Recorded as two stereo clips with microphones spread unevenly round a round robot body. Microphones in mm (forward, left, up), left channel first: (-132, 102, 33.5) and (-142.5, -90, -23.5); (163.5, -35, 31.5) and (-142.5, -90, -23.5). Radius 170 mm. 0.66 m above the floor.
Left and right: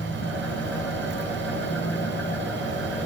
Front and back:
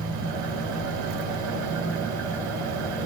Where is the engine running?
75° left, 4.5 m.